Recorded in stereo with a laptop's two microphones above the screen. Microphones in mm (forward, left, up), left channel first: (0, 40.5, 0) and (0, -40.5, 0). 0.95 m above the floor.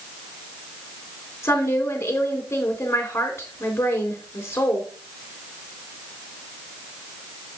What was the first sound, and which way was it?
A woman speaking, 30° left (ahead or behind).